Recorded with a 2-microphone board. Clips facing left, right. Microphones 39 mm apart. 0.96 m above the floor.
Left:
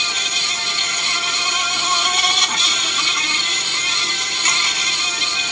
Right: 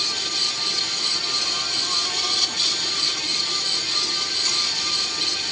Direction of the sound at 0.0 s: 60° left (ahead or behind).